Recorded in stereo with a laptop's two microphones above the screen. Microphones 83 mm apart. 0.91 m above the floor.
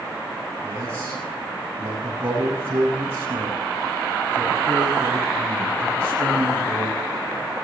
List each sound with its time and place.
0.6 s a man speaking: 30° right (ahead or behind), 8.5 m